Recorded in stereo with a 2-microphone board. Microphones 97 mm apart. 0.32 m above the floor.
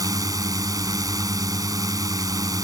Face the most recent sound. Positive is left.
turn(degrees=-35)  # may be behind; listen again after turning